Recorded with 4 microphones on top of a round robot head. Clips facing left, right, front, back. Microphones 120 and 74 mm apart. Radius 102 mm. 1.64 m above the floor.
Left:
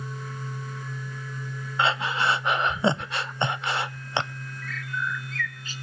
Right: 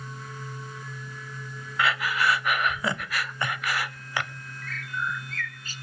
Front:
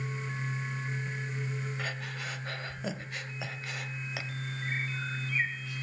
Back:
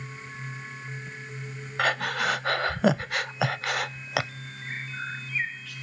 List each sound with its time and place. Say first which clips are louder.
1.8 s breathing: left 1 dB, back 12 dB; 155° left, 0.6 m
4.6 s a bird: even, back 1 dB; 135° right, 3 m